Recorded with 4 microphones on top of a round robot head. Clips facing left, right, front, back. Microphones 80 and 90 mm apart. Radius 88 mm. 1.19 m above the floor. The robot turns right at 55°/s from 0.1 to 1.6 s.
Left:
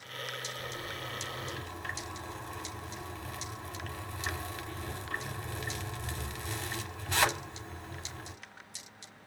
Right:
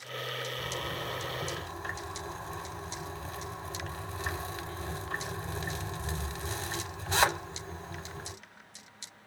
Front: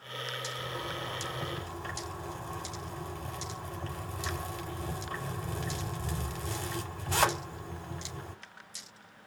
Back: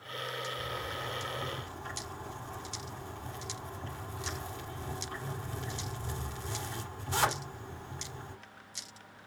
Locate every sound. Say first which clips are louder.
0.6 s a zipper: right 4 dB, front 1 dB; 85° right, 3.5 m; by 8.3 s 30° right, 3.5 m